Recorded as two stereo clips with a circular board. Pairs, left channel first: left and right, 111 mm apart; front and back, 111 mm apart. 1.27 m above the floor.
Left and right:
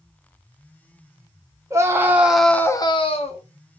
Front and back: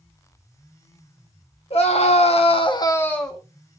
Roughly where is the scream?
Ahead right.